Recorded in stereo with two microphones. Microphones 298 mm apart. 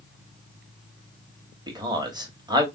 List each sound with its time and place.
1.7 s a man speaking: 15° right (ahead or behind), 1.0 m